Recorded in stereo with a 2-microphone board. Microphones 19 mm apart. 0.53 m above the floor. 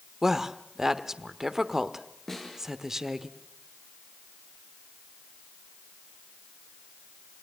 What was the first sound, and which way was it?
A woman speaking, 20° right (ahead or behind).